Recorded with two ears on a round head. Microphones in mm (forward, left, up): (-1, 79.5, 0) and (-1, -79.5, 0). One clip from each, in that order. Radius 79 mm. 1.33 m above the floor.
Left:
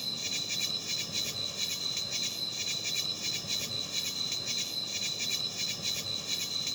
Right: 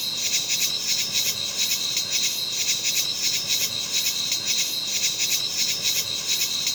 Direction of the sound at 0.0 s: 55° right (ahead or behind).